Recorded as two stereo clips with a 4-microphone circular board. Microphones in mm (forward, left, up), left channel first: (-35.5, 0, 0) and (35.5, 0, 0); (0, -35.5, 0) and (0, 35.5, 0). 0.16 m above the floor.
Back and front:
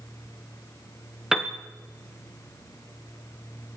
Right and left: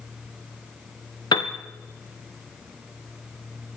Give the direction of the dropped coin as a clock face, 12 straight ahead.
No dropped coin in this recording.